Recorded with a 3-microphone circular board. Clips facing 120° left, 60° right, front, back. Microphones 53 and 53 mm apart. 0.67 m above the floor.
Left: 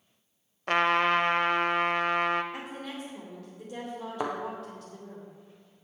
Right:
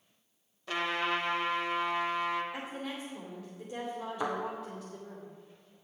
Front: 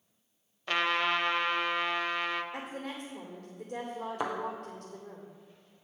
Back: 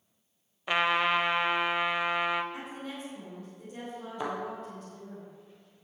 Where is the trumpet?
110° left, 0.6 m.